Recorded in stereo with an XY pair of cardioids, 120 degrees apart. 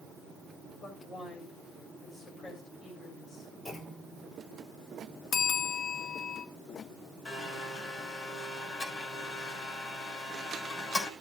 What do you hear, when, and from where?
0.8 s a woman speaking: 35° left, 6 m
3.6 s a clunk: 30° left, 3.5 m
5.3 s a bell: 65° left, 1.2 m
7.2 s a blender: 30° left, 6.5 m